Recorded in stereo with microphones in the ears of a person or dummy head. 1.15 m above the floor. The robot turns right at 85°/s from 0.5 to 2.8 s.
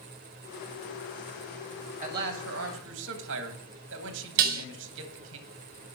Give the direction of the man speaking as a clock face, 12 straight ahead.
5 o'clock.